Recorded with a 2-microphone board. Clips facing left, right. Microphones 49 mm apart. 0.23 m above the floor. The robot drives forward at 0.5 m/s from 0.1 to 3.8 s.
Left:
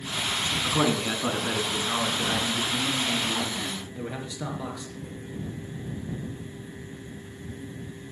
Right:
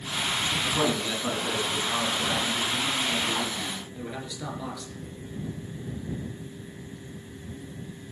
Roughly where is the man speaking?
Left.